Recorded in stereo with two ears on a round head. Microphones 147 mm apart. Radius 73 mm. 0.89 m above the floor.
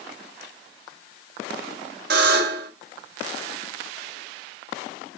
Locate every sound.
2.1 s a buzzer: 70° right (ahead or behind), 1.9 m